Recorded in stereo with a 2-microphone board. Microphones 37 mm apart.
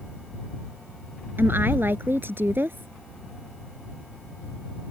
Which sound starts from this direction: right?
A woman speaking, at 1.4 s.